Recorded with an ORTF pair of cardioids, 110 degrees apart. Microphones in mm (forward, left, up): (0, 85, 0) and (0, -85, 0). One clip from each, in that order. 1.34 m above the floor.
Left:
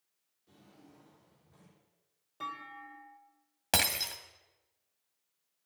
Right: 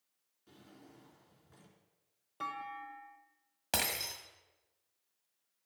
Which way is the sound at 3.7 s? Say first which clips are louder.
Left 5 dB; 25° left.